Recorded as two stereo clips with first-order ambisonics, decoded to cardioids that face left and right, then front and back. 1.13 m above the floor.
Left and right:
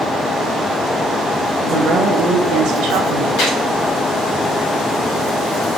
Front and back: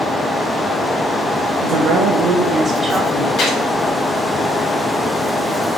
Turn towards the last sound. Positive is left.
turn(degrees=55)